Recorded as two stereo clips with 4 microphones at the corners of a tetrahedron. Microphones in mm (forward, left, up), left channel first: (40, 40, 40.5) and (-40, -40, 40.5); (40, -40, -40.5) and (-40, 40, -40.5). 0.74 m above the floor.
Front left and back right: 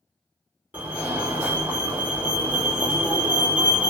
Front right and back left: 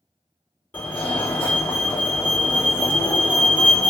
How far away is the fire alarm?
About 1.6 m.